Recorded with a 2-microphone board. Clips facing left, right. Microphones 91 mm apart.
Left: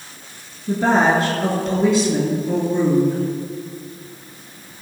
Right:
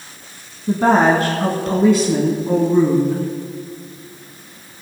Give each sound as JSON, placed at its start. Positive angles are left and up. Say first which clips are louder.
{"t": 0.7, "sound": "a woman speaking", "louder": "right 3 dB", "side_deg": -50, "distance_m": 2.0}